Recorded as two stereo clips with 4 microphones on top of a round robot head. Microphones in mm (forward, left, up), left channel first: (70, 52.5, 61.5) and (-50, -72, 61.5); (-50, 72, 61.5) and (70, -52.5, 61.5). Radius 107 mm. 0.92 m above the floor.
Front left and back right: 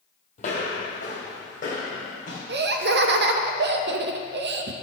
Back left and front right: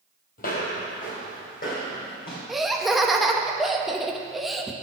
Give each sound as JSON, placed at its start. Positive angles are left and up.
{"t": 0.4, "sound": "footsteps", "azimuth_deg": 100, "distance_m": 1.6}
{"t": 2.5, "sound": "laughter", "azimuth_deg": -135, "distance_m": 1.0}